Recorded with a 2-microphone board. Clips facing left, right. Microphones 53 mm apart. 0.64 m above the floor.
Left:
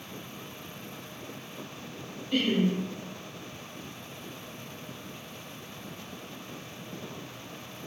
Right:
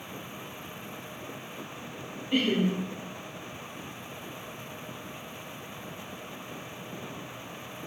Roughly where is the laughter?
Centre.